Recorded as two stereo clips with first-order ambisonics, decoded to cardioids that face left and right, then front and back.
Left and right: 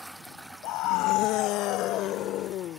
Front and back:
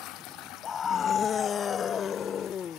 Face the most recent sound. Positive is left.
turn(degrees=55)